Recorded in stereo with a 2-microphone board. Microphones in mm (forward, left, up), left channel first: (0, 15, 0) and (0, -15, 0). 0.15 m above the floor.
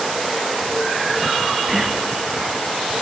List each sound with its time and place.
1.7 s whispering: 10° right (ahead or behind), 1.7 m